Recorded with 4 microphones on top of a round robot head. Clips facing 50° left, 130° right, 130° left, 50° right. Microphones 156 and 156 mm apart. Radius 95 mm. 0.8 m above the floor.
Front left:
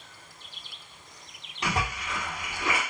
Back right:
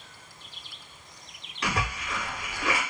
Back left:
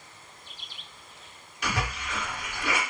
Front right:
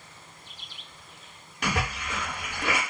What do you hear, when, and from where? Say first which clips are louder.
1.6 s a splash: front left 1 dB, front right 2 dB; 15° right, 1.2 m